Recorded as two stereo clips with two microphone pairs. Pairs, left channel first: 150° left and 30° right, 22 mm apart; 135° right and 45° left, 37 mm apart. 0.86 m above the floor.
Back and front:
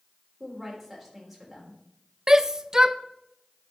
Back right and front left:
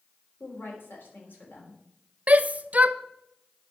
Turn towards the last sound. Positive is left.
turn(degrees=25)